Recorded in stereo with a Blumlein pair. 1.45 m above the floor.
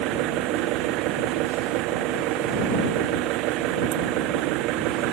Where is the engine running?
40° right.